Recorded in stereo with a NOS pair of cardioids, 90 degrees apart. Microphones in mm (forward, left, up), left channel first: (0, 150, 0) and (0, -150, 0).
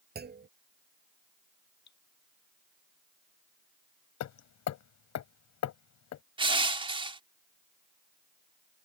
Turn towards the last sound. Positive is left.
turn(degrees=-20)